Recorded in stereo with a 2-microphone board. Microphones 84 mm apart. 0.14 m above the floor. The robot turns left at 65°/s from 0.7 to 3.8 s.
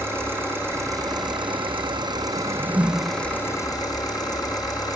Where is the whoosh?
115° right, 1.0 m; by 3.2 s 170° right, 1.0 m.